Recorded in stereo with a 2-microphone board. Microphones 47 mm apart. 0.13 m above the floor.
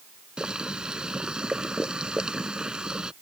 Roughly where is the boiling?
Centre.